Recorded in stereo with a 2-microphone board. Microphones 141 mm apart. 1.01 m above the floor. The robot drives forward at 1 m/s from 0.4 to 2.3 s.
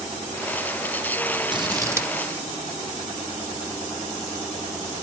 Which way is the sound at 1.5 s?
35° right (ahead or behind).